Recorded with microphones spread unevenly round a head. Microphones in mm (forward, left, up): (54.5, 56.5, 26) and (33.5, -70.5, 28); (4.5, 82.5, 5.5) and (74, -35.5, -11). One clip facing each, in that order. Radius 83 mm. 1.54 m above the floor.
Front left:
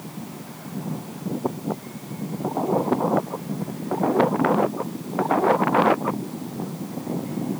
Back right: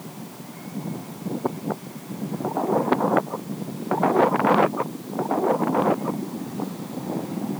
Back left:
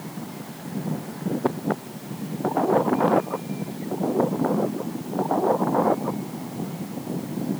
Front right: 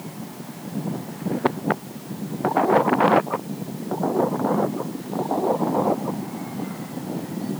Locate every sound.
Only background noise.